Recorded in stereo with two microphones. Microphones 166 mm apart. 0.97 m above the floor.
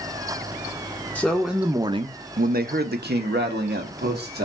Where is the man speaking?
10° left (ahead or behind), 0.6 m; by 4.5 s 75° right (ahead or behind), 1.4 m.